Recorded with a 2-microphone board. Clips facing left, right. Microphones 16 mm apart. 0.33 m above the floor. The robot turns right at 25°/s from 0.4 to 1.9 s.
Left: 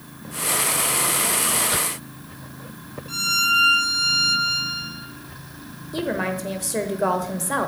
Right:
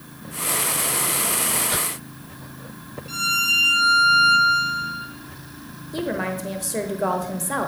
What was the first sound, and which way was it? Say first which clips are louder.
A violin: even; 5° right (ahead or behind).